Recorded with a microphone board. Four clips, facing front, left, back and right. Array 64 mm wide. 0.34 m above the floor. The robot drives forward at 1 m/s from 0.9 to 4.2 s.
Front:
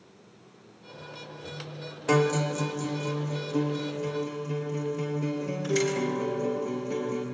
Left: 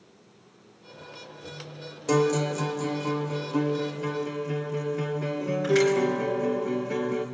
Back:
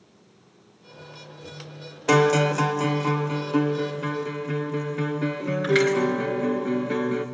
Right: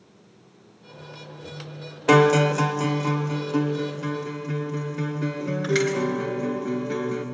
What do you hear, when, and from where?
2.1 s a guitar: 110° right, 0.6 m; by 7.2 s 165° right, 2.5 m